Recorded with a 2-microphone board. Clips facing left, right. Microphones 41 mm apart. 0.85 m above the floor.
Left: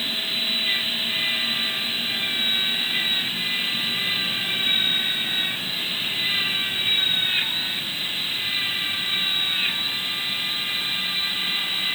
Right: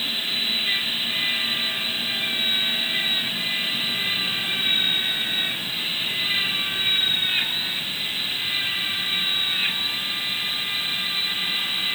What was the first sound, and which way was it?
Only background noise.